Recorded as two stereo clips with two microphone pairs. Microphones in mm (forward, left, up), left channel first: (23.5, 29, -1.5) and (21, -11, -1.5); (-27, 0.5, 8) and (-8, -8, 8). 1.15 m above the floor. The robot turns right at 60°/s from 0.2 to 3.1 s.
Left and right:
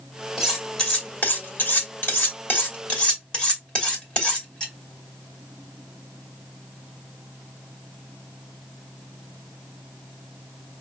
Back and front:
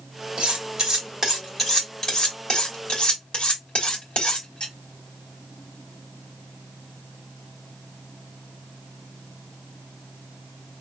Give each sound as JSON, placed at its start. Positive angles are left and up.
{"t": 0.4, "sound": "cutlery clinking", "azimuth_deg": -10, "distance_m": 2.5}